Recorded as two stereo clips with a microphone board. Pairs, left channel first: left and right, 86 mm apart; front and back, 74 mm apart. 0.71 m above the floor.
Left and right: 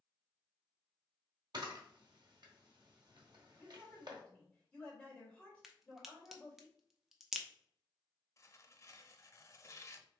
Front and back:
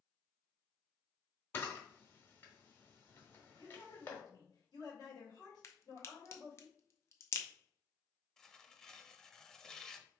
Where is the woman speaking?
15° left, 2.5 m.